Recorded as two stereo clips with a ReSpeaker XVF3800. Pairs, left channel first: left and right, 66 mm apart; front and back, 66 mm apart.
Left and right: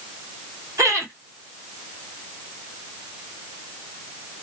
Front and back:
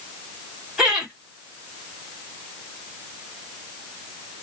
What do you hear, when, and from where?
0.8 s laughter: 100° right, 1.5 m